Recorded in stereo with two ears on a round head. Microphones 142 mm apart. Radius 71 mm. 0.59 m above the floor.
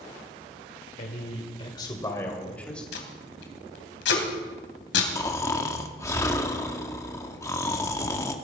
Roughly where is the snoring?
Centre.